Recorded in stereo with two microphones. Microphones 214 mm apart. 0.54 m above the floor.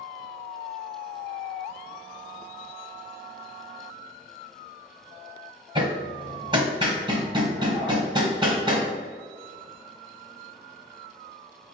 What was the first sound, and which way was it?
Hammering, 20° right (ahead or behind).